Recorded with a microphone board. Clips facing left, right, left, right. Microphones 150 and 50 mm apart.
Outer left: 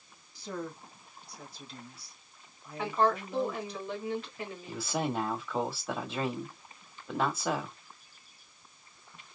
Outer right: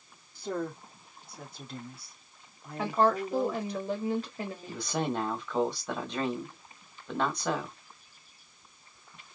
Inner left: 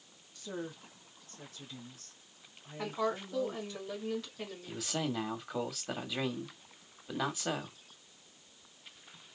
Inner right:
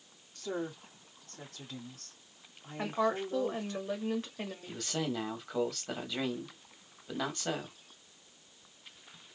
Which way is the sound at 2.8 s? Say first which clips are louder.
Outer right 2 dB, inner right 3 dB; 40° right (ahead or behind).